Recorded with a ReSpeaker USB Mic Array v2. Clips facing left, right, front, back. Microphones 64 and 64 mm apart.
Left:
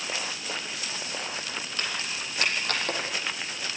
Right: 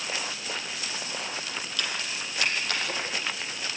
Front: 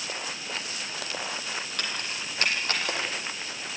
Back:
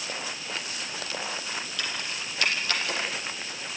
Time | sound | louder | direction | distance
1.8 | keys jangling | even, even | 35° left | 4 m